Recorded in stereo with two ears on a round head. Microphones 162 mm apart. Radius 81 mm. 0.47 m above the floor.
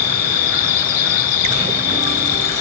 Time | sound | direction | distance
0.0 | an insect | 55° left (ahead or behind) | ?